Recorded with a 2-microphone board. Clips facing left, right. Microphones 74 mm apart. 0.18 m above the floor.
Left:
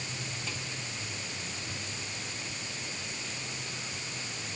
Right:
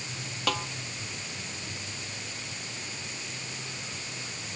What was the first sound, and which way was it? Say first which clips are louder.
A snare drum: right 10 dB; 75° right (ahead or behind).